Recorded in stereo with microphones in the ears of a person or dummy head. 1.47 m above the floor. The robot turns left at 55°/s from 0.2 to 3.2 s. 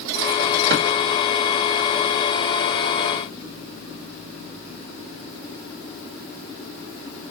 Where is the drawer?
65° right (ahead or behind), 2 m.